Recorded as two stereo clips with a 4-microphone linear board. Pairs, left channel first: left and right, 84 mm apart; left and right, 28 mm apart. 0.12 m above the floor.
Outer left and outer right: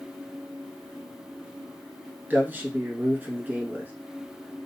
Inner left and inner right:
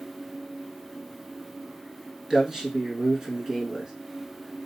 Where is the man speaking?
25° right (ahead or behind), 1.1 m.